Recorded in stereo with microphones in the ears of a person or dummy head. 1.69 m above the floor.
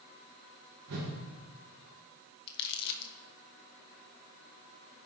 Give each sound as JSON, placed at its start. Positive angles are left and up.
{"t": 0.9, "sound": "a whoosh", "side_deg": -75, "distance_m": 1.8}
{"t": 2.5, "sound": "crumpling", "side_deg": 55, "distance_m": 0.8}